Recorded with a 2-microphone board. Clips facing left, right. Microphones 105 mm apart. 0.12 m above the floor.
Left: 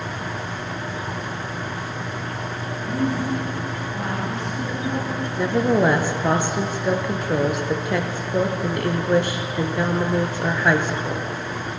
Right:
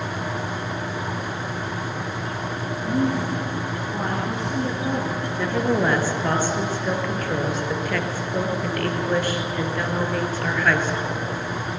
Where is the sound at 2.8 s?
20° right (ahead or behind), 7 m; by 5.3 s 30° right (ahead or behind), 9 m.